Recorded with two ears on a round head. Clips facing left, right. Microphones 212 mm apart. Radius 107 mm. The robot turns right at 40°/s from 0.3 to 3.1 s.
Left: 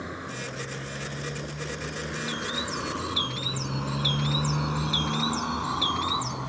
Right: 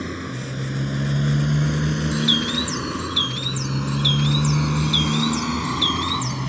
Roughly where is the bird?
Ahead right.